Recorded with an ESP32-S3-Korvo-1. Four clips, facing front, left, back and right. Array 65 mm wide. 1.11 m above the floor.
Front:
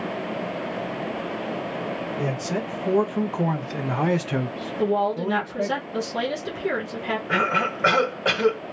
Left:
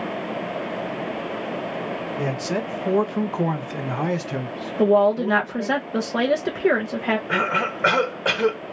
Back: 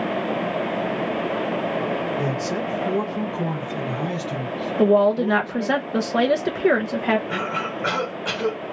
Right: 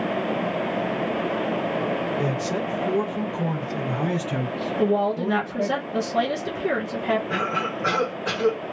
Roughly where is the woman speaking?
Behind left.